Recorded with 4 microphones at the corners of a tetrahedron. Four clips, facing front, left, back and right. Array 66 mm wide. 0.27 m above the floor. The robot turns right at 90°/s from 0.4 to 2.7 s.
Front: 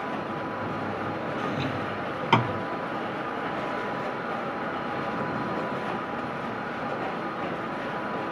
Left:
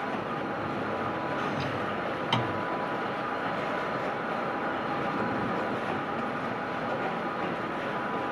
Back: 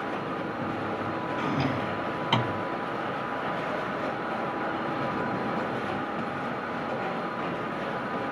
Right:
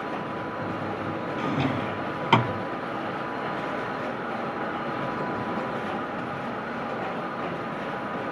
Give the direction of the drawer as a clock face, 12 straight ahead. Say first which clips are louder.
Right 4 dB, back 3 dB; 5 o'clock.